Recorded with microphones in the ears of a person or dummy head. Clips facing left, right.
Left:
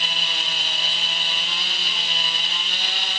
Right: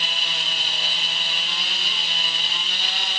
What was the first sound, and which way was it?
Only background noise.